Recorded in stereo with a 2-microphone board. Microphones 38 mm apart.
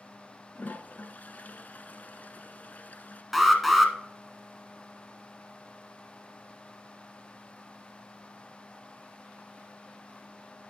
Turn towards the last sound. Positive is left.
turn(degrees=0)  # may be behind; listen again after turning